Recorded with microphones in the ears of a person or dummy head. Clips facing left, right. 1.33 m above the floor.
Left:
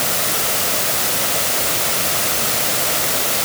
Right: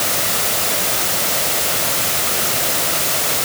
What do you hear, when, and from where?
Only background noise.